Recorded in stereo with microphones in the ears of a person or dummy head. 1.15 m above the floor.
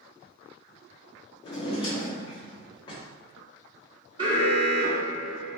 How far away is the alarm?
About 0.6 m.